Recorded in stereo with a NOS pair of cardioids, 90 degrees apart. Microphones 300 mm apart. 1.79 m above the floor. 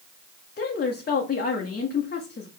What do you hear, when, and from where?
0.6 s a woman speaking: 35° left, 0.9 m